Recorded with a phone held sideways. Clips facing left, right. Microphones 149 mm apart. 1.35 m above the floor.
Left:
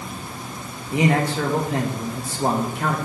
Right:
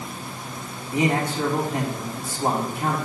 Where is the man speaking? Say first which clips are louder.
Left 3 dB; 70° left (ahead or behind), 1.9 m.